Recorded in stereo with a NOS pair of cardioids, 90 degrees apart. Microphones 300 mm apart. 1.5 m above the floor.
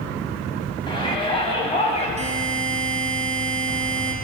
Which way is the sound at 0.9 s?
15° left.